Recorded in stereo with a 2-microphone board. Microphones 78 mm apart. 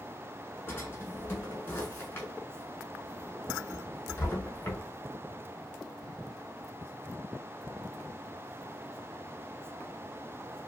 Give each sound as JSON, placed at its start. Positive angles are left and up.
{"t": 0.7, "sound": "a drawer", "side_deg": 30, "distance_m": 1.0}